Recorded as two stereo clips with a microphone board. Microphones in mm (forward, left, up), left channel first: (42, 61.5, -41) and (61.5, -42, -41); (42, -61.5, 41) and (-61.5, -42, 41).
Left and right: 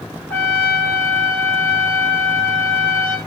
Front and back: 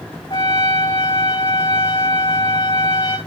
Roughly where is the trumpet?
Ahead left.